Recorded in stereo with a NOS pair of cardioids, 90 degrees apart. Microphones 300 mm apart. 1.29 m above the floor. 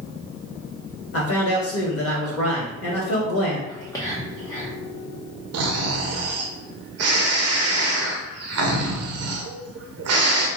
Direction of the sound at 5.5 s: 55° right.